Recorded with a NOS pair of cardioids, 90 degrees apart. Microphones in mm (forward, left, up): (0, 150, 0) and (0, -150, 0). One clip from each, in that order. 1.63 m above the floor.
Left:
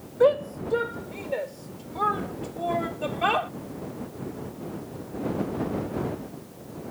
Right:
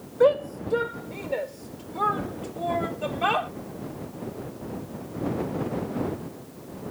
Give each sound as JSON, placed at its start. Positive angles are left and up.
{"t": 0.2, "sound": "a shout", "azimuth_deg": -5}